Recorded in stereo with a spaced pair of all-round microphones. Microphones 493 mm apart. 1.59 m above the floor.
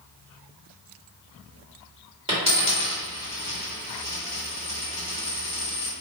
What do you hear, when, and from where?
2.3 s a dropped coin: 10° right (ahead or behind), 1.6 m